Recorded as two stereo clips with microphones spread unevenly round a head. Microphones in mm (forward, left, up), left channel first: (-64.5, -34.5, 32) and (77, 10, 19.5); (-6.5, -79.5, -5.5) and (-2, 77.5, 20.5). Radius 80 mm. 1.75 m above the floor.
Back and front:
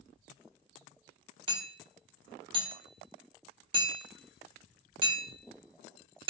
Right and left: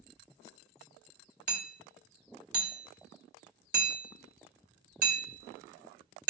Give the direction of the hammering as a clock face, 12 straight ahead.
9 o'clock.